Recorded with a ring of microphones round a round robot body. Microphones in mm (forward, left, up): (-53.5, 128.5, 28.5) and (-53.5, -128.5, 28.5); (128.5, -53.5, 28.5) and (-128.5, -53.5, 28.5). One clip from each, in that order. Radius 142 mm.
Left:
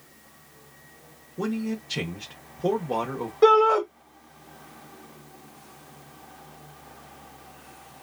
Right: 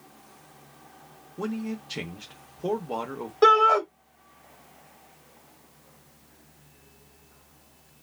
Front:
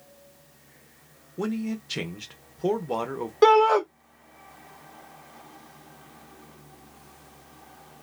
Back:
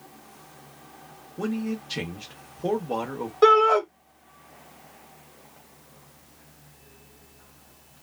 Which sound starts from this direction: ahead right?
A shout, at 3.4 s.